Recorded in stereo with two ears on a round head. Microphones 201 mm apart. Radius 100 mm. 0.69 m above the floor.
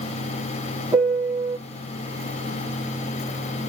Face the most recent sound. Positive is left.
turn(degrees=-10)  # may be behind; listen again after turning